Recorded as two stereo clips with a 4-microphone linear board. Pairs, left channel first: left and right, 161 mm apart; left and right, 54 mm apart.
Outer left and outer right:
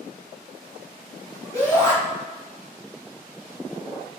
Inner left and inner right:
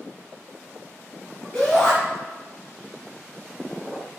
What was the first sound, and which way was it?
A shout, 20° left (ahead or behind).